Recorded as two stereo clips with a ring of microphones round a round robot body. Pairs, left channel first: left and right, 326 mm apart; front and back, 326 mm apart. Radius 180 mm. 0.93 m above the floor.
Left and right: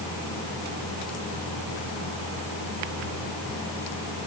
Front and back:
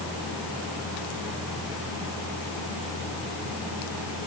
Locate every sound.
Only background noise.